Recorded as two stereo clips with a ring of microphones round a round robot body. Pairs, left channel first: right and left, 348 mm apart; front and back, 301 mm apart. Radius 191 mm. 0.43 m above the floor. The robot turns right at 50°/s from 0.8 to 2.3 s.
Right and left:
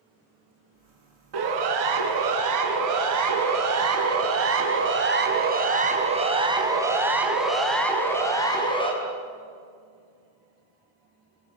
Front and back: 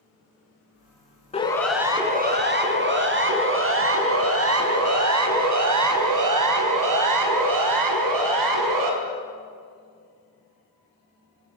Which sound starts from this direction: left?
A siren, at 1.3 s.